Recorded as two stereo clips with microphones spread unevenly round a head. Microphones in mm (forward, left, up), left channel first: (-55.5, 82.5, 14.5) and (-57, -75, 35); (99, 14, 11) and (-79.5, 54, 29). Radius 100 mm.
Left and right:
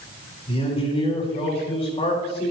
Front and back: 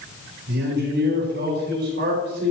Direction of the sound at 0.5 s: 140° left.